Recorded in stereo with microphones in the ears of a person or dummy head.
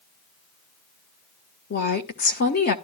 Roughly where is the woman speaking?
Left.